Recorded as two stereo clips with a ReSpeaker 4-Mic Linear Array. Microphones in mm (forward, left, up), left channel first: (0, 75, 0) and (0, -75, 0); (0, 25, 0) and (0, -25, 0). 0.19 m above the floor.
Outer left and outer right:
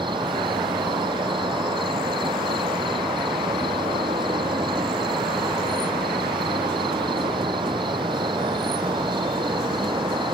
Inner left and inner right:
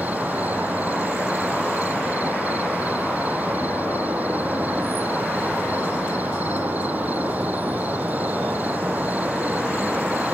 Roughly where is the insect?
Right.